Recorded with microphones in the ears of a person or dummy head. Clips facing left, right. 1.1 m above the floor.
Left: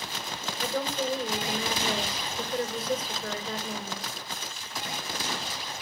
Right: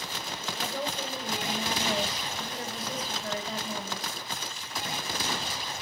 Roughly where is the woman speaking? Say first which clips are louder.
Left 5 dB; left.